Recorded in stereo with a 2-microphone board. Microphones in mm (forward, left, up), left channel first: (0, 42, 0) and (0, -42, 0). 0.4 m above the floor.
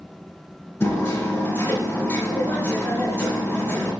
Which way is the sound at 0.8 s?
25° left (ahead or behind).